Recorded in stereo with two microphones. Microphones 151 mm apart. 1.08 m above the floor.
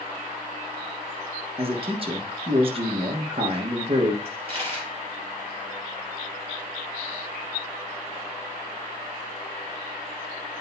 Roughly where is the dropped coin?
Right.